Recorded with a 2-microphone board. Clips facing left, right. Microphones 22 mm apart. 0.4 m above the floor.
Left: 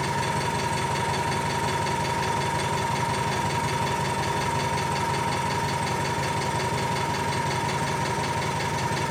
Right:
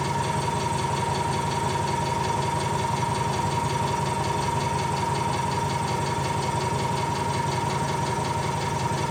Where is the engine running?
65° left (ahead or behind), 4.5 m.